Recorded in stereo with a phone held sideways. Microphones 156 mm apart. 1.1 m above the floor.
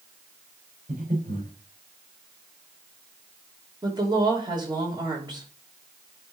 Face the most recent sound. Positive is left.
turn(degrees=-30)  # may be behind; listen again after turning